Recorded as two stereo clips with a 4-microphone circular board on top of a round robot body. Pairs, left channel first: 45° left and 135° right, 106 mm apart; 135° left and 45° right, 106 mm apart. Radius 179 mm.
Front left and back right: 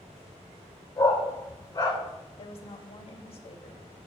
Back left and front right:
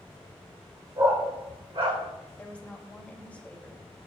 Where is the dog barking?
5° right, 2.5 m.